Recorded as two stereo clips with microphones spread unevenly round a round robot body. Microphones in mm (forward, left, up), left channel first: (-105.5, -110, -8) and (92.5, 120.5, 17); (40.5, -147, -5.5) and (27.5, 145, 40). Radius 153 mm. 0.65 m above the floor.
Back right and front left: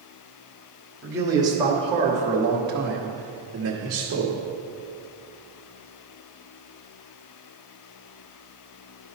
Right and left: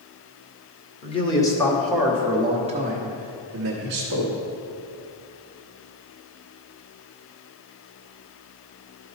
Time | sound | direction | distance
1.0 | a man speaking | 35° right | 1.5 m